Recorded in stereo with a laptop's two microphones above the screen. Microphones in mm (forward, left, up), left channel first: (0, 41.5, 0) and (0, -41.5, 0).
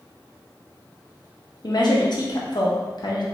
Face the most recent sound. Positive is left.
turn(degrees=60)  # may be behind; listen again after turning